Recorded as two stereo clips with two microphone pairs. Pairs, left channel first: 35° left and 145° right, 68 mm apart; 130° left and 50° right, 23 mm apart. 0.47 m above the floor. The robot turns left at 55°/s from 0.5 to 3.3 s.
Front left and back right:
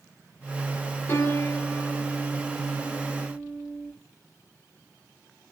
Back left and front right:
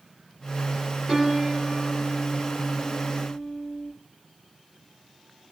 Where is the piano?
15° left, 0.9 m; by 3.9 s 105° right, 0.9 m.